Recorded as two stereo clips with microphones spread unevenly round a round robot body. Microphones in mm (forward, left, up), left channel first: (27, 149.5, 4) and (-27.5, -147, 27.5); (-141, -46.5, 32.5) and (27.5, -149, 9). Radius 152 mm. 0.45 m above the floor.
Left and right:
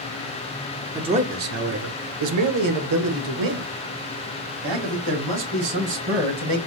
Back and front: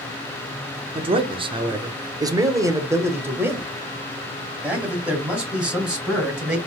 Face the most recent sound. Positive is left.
turn(degrees=-115)